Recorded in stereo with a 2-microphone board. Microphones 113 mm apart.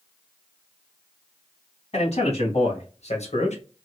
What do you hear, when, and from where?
1.9 s a man speaking: 65° left (ahead or behind), 2 m; by 3.6 s 85° left, 1.1 m